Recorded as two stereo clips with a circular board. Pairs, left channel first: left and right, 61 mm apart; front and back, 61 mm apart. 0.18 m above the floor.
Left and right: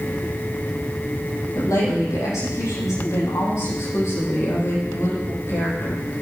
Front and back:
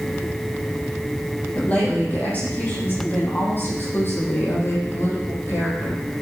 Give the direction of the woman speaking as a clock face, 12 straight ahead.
10 o'clock.